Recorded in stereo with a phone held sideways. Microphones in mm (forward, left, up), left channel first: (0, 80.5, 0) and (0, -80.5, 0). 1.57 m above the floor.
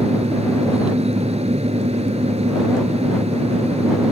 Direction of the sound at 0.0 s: 40° right (ahead or behind).